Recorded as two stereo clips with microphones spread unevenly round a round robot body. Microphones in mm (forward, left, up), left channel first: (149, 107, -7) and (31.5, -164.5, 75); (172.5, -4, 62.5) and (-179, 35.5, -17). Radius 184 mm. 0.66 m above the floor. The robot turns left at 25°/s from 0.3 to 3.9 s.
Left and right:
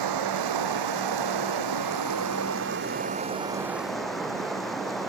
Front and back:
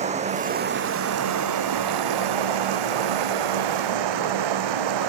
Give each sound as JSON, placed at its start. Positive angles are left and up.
{"t": 0.0, "sound": "running water", "azimuth_deg": -115}